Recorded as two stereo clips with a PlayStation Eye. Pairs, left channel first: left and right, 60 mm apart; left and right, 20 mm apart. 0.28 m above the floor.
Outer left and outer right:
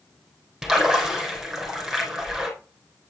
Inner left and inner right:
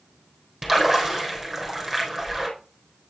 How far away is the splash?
About 3.5 m.